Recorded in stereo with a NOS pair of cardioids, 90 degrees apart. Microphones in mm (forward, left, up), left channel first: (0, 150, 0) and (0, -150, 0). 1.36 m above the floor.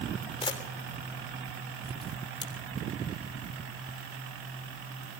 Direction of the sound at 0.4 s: 20° left.